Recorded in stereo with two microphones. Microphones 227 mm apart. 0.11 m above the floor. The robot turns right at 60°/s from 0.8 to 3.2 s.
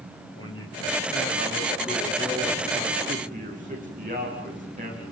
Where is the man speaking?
70° left, 9.5 m; by 5.0 s 145° right, 9.5 m.